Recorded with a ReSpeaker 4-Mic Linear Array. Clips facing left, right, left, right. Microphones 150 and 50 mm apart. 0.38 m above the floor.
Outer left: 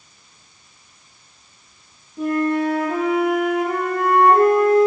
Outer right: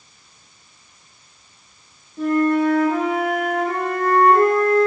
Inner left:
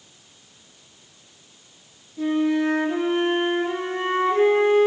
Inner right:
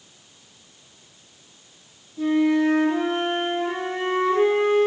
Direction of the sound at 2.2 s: 10° left (ahead or behind).